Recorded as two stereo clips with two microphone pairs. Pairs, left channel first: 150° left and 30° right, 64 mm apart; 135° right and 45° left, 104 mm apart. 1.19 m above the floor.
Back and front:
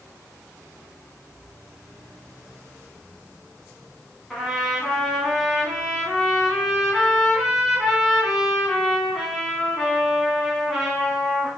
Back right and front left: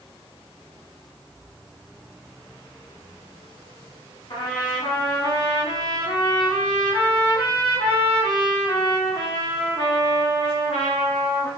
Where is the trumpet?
120° right, 1.7 m.